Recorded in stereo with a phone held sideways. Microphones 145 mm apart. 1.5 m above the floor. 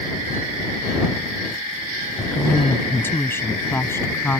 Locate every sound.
2.2 s a woman speaking: 15° left (ahead or behind)